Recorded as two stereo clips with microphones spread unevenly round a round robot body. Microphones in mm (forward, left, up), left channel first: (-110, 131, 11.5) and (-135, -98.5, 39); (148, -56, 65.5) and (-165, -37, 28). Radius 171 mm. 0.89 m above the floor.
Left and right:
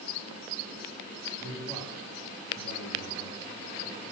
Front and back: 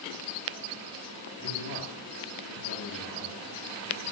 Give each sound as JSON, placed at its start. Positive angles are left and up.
{"t": 1.4, "sound": "a man speaking", "azimuth_deg": -25, "distance_m": 2.0}